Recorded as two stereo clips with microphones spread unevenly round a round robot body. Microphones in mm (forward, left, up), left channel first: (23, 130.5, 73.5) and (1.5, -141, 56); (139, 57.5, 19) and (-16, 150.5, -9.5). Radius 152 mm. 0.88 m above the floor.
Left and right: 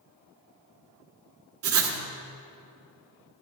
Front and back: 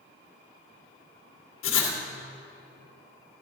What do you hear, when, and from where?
1.6 s writing: 55° right, 1.7 m